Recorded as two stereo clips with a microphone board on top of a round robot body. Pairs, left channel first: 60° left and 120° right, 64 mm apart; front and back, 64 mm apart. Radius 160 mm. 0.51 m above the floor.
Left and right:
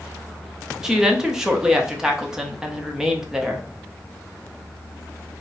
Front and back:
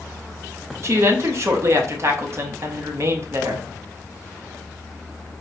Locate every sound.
0.8 s a woman speaking: 160° left, 1.0 m